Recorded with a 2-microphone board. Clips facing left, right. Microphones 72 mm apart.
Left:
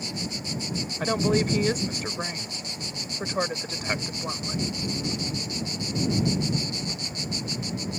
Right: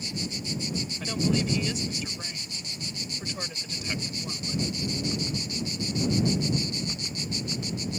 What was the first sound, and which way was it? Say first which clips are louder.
A woman speaking: left 4 dB; 50° left (ahead or behind).